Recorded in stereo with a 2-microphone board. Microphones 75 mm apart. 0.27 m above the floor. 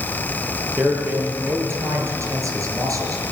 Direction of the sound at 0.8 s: 25° right (ahead or behind).